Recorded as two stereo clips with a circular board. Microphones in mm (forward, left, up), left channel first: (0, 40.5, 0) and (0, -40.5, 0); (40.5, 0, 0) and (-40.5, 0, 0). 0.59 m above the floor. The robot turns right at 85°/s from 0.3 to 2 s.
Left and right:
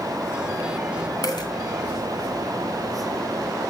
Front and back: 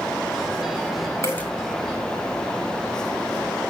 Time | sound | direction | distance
1.2 | a dropped coin | 50° left | 2.5 m